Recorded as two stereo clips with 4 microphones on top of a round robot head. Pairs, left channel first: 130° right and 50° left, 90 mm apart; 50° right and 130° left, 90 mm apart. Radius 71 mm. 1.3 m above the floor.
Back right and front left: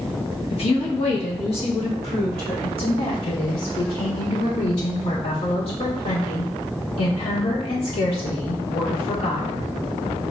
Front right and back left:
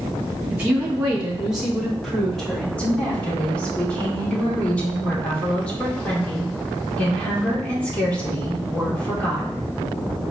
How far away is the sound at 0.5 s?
About 1.4 m.